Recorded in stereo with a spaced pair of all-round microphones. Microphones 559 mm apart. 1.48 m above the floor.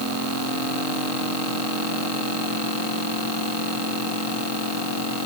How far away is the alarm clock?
No alarm clock in this recording.